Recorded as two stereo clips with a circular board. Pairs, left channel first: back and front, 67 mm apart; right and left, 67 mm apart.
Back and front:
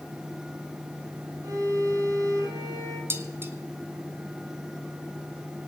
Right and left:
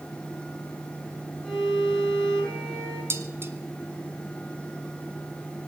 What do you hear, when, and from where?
1.4 s a violin: 15° right, 8.5 m
3.1 s dishes clattering: 45° left, 1.5 m